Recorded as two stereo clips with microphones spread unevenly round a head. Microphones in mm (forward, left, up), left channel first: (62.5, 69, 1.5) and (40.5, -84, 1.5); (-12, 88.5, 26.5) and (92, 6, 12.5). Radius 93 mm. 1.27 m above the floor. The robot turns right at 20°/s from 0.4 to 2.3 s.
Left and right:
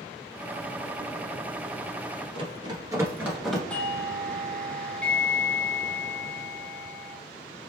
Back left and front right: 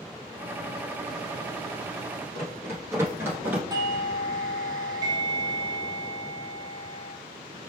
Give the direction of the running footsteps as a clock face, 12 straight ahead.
4 o'clock.